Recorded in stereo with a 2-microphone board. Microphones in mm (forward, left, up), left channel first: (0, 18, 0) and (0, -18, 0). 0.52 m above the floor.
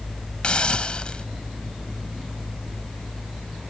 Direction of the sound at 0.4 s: 30° left (ahead or behind).